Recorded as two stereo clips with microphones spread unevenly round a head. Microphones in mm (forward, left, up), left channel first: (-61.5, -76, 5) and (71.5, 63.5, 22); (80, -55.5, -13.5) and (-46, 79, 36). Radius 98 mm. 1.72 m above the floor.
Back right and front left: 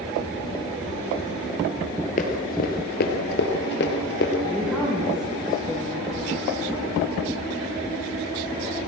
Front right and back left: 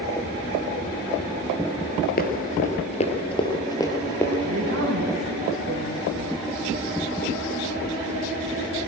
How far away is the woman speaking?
About 5 m.